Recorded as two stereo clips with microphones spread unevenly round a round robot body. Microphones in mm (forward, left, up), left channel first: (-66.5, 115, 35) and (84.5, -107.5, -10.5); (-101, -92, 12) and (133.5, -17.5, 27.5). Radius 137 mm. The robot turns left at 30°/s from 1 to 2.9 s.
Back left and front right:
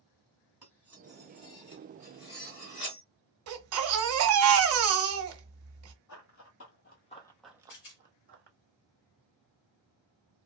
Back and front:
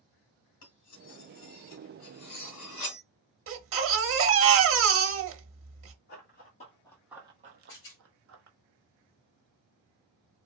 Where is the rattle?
Straight behind, 2 m.